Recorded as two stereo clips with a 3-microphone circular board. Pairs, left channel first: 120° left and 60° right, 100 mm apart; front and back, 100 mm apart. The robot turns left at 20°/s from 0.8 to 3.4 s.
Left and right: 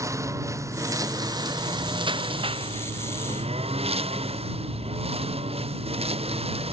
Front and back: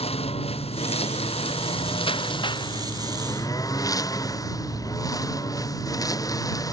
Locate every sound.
0.0 s a lawn mower: straight ahead; by 6.7 s 55° right